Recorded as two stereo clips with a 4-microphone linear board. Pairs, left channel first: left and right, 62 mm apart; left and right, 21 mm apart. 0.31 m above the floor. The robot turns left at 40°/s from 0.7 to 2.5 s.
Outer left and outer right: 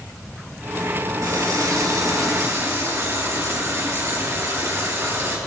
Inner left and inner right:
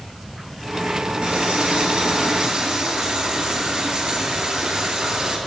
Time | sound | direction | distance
1.2 | a running tap | 80° right | 4 m